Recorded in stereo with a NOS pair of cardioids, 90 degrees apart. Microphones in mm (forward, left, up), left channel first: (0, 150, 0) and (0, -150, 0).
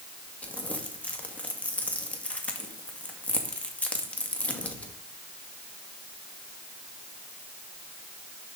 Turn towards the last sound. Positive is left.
turn(degrees=5)